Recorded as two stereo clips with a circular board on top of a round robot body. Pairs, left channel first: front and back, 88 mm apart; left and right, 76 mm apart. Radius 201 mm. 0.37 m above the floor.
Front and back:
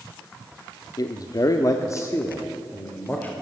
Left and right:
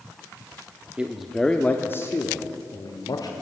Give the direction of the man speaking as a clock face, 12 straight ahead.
1 o'clock.